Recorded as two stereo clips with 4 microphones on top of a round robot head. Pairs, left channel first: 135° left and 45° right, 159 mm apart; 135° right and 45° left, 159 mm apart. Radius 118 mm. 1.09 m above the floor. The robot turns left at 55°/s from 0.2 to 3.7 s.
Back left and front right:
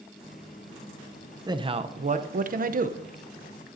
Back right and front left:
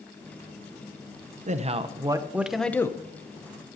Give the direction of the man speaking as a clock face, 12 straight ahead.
11 o'clock.